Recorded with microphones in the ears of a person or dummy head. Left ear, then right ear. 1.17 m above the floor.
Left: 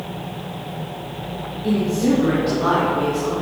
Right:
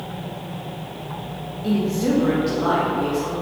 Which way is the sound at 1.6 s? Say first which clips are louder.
Left 2 dB; 15° right (ahead or behind).